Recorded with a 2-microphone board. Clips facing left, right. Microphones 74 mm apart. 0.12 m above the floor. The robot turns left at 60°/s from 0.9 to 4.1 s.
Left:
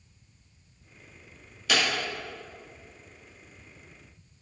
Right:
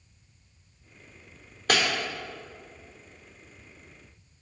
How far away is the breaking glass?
About 3 m.